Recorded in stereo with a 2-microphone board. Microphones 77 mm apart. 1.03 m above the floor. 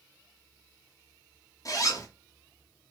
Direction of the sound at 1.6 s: 45° left (ahead or behind).